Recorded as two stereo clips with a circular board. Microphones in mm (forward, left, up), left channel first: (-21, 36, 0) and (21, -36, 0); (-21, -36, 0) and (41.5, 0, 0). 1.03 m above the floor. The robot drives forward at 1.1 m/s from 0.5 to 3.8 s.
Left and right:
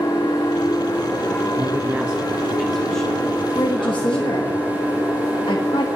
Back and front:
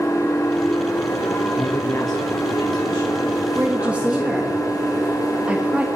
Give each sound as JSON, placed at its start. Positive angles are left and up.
{"t": 0.0, "sound": "an engine running", "azimuth_deg": 155, "distance_m": 2.5}
{"t": 1.6, "sound": "a man speaking", "azimuth_deg": -110, "distance_m": 0.9}
{"t": 3.5, "sound": "a woman speaking", "azimuth_deg": 85, "distance_m": 0.9}